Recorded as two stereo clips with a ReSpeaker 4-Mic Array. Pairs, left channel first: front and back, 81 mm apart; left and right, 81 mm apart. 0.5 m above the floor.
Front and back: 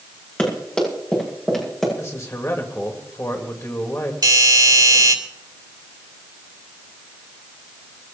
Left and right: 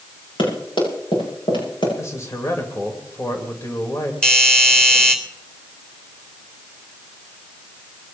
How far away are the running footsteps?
About 9.5 m.